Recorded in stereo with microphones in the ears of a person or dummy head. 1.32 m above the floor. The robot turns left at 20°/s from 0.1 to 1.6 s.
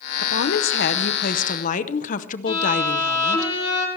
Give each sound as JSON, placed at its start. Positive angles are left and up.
{"t": 0.2, "sound": "a woman speaking", "side_deg": 60, "distance_m": 0.7}
{"t": 2.5, "sound": "a violin", "side_deg": 30, "distance_m": 3.0}